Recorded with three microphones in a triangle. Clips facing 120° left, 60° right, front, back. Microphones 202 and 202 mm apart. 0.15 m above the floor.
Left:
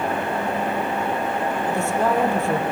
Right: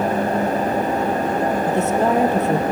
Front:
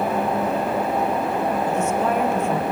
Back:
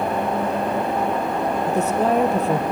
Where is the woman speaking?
130° right, 3 m.